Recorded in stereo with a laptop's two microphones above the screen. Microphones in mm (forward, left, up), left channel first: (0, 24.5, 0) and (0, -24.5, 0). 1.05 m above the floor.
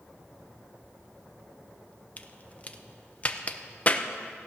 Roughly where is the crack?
Left.